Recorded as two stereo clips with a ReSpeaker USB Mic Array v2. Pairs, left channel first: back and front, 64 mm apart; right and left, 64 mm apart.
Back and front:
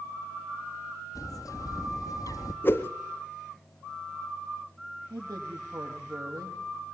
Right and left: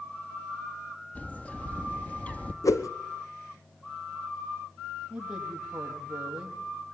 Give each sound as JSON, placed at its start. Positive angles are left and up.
{"t": 1.1, "sound": "a bird", "azimuth_deg": -160, "distance_m": 1.7}
{"t": 2.6, "sound": "a whoosh", "azimuth_deg": -125, "distance_m": 1.1}
{"t": 5.1, "sound": "a man speaking", "azimuth_deg": 15, "distance_m": 5.0}